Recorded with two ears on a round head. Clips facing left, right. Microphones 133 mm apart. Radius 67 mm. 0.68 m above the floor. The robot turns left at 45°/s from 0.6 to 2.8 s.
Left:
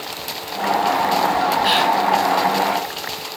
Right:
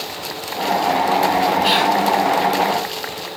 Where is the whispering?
60° right (ahead or behind), 4 m; by 1.9 s 45° right (ahead or behind), 4 m.